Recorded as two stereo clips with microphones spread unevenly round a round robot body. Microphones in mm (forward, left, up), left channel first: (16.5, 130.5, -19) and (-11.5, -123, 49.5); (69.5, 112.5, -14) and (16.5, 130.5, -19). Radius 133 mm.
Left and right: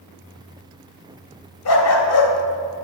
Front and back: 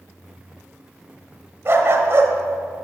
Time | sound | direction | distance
1.6 | a dog barking | 110° left | 1.1 m